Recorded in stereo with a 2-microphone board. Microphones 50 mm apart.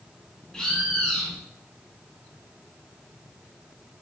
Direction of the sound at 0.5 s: 15° left (ahead or behind).